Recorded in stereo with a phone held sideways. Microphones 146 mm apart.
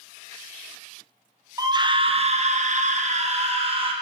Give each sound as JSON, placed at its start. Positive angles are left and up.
{"t": 1.6, "sound": "a scream", "side_deg": -25, "distance_m": 0.8}